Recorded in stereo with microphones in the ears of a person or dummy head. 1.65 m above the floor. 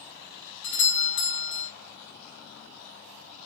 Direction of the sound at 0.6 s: 70° left (ahead or behind).